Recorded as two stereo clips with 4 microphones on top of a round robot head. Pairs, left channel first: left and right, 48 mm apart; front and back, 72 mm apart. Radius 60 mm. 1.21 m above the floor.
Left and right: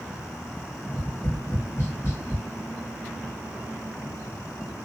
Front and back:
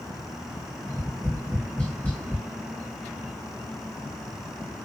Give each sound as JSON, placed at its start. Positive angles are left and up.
{"t": 0.8, "sound": "tapping", "azimuth_deg": 70, "distance_m": 1.5}